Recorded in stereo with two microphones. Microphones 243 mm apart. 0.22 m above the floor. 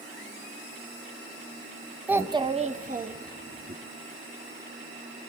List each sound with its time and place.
2.1 s a child speaking: 5° right (ahead or behind), 0.7 m; by 3.8 s 45° right (ahead or behind), 1.9 m